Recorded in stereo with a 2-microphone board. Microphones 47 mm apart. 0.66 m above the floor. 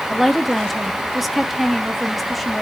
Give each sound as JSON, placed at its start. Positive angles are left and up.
{"t": 0.1, "sound": "a woman speaking", "side_deg": 0, "distance_m": 1.2}